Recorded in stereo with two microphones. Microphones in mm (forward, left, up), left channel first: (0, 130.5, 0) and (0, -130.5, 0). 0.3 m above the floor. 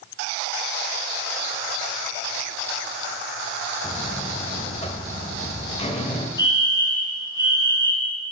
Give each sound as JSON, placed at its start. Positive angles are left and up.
{"t": 3.8, "sound": "a buzzer", "side_deg": 25, "distance_m": 0.8}
{"t": 6.4, "sound": "a fire alarm", "side_deg": 15, "distance_m": 1.9}